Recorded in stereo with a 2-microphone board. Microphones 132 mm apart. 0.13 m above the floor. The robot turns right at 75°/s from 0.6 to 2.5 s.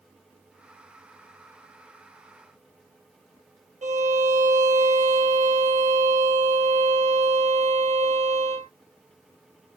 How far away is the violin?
About 2.0 m.